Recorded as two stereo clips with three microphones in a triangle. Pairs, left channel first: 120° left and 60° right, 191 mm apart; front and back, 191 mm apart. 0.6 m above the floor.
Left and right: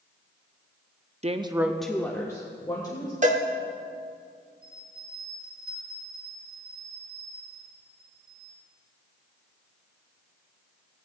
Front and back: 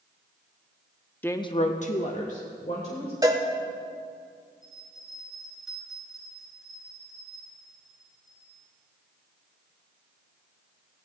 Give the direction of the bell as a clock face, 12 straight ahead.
3 o'clock.